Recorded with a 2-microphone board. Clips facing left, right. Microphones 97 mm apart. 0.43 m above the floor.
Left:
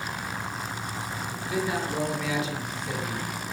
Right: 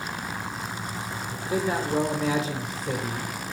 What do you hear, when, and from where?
1.3 s a man speaking: 35° right (ahead or behind), 1.6 m